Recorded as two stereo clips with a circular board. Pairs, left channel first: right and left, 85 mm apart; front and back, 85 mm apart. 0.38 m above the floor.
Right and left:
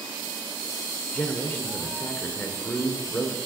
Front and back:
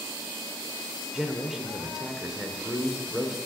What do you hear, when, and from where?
1.1 s a man speaking: 105° right, 1.0 m